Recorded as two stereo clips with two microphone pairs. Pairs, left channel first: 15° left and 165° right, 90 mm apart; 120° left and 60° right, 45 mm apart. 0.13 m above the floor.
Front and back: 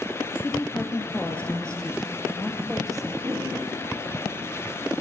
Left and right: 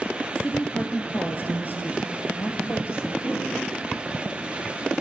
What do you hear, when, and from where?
0.3 s a woman speaking: 75° left, 2 m; by 3.1 s 105° left, 2.5 m
3.2 s a whoosh: 135° left, 9.5 m